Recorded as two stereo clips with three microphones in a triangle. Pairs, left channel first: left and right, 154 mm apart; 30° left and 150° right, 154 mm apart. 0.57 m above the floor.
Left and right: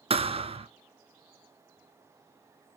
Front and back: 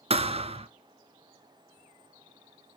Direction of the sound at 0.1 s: 120° right.